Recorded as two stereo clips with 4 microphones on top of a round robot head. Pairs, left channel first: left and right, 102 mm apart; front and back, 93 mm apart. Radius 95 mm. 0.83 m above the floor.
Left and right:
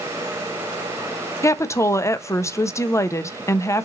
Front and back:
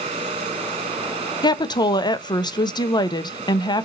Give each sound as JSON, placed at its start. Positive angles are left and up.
{"t": 1.4, "sound": "a woman speaking", "azimuth_deg": 30, "distance_m": 0.5}